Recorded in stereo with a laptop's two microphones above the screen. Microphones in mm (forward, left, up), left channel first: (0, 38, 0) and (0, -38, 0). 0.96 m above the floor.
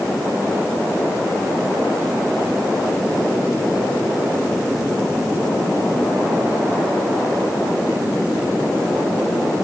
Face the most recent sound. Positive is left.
No sound to turn to.